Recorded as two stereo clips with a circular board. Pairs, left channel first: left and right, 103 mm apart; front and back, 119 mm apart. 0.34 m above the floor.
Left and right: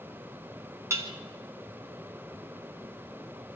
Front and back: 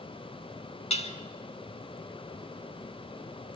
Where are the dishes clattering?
30° right, 2 m.